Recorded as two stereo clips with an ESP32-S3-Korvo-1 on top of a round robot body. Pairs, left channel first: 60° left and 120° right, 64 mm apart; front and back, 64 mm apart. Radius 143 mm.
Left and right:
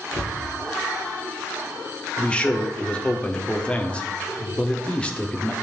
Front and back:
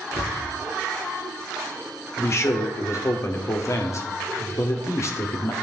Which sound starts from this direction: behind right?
A cupboard door, at 0.1 s.